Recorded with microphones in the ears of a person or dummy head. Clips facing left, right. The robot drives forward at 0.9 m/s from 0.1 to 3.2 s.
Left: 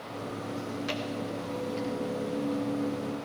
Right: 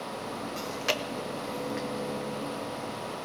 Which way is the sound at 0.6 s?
80° right.